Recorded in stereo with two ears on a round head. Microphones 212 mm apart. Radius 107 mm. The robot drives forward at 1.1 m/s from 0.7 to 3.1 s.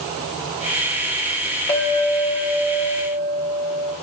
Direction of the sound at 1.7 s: 10° left (ahead or behind).